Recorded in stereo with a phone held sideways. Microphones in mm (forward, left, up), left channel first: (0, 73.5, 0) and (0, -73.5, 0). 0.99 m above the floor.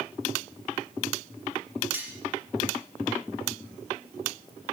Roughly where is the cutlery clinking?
Centre.